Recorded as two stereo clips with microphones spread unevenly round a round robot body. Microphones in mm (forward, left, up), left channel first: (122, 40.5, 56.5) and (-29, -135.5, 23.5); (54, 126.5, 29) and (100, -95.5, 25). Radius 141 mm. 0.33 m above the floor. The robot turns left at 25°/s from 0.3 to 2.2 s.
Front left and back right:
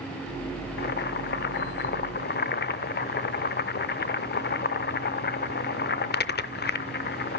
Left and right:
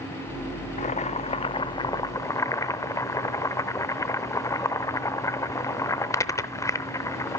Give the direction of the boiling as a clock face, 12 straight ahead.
10 o'clock.